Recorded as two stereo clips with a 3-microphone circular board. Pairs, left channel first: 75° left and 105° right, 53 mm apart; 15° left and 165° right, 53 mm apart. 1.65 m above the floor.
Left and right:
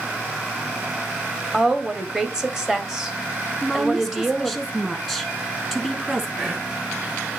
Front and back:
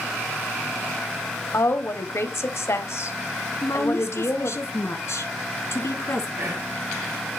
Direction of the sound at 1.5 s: 25° right.